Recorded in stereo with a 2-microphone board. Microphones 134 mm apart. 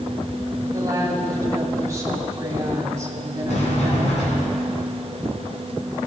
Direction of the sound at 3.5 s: 60° left (ahead or behind).